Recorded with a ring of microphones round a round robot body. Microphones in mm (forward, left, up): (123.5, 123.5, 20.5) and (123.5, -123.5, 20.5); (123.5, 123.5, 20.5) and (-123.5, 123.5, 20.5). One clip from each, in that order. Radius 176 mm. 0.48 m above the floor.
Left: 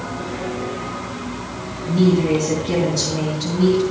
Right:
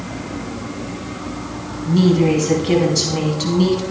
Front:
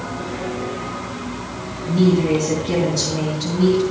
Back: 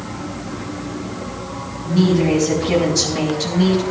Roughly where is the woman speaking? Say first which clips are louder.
Right 2 dB, even; behind right.